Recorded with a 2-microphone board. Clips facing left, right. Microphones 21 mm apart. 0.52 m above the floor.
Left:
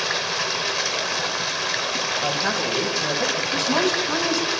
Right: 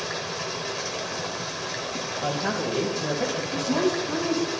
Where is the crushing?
I don't hear crushing.